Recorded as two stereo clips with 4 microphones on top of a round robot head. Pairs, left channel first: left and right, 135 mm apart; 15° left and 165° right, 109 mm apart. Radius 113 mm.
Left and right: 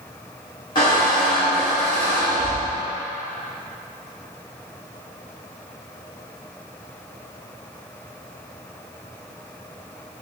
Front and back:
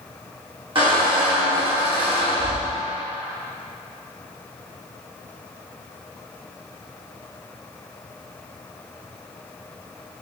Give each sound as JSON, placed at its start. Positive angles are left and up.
{"t": 0.8, "sound": "a squeak", "azimuth_deg": 155, "distance_m": 1.4}